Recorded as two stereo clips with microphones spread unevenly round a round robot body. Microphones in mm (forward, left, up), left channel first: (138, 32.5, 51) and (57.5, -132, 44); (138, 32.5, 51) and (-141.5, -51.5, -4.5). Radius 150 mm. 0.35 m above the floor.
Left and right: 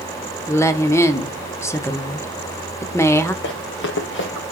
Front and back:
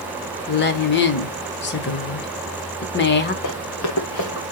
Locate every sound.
0.5 s a woman speaking: 5° left, 0.9 m
3.4 s running footsteps: 50° left, 1.8 m; by 4.5 s 65° left, 2 m